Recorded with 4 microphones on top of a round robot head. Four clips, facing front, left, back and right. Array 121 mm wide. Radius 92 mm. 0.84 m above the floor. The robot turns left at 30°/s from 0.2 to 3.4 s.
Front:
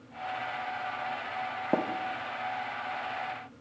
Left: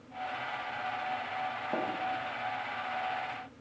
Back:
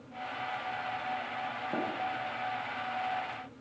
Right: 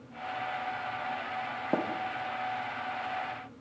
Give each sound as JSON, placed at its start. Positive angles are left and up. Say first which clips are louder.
{"t": 1.7, "sound": "tapping", "louder": "right 5 dB, front 7 dB", "azimuth_deg": -25, "distance_m": 0.5}